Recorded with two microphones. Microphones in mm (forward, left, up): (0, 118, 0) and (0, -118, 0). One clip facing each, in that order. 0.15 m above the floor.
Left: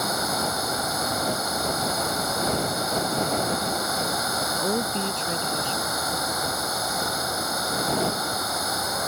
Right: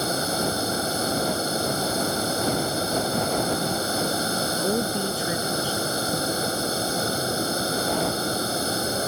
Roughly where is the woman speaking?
Centre.